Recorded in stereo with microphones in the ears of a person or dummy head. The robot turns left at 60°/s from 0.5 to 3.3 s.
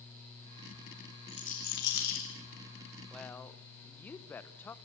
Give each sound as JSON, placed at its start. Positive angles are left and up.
{"t": 1.3, "sound": "a rattle", "side_deg": 35, "distance_m": 3.5}
{"t": 3.1, "sound": "a woman speaking", "side_deg": 0, "distance_m": 0.8}